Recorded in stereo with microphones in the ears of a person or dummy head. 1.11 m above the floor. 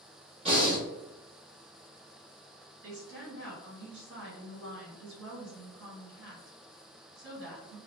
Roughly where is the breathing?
Right.